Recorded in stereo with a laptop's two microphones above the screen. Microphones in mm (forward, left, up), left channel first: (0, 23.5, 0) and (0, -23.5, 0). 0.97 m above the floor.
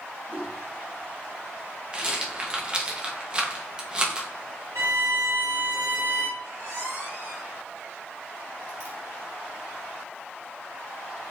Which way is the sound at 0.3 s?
40° right (ahead or behind).